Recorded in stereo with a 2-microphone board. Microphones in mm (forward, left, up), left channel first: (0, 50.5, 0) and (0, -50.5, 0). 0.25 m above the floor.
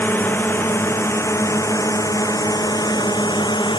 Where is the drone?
20° left (ahead or behind); by 3.8 s 45° left (ahead or behind).